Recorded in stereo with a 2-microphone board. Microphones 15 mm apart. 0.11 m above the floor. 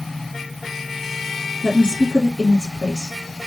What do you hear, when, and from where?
1.6 s a woman speaking: 40° left (ahead or behind), 2.5 m